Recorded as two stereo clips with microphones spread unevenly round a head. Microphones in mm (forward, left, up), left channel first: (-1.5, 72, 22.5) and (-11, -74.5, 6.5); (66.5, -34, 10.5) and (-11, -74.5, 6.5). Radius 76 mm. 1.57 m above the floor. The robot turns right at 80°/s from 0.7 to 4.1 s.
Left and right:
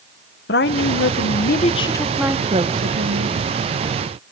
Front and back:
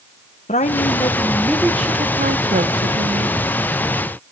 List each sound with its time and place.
0.5 s a woman speaking: 60° left, 1.4 m; by 3.5 s 80° right, 1.4 m